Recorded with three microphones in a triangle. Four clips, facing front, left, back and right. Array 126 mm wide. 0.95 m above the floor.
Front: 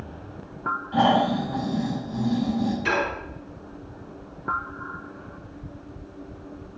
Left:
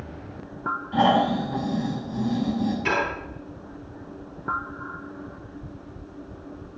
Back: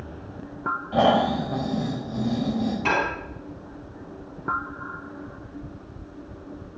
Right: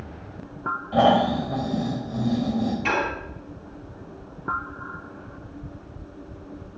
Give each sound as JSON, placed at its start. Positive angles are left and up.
{"t": 0.9, "sound": "snoring", "azimuth_deg": -140, "distance_m": 4.5}
{"t": 2.9, "sound": "dishes clattering", "azimuth_deg": -175, "distance_m": 4.5}